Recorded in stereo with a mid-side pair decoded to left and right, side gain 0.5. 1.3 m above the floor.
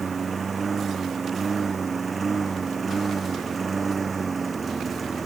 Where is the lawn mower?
30° right; by 5.3 s 25° right.